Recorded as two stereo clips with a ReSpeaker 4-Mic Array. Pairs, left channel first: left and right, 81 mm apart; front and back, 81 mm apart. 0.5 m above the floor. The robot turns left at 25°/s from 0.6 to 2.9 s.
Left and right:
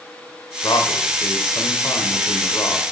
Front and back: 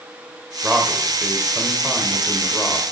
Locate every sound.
0.6 s a man speaking: 105° left, 1.5 m; by 2.9 s 50° left, 1.5 m